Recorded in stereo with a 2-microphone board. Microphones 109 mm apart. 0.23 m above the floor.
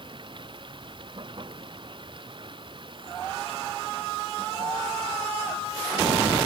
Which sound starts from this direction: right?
Running water, at 0.0 s.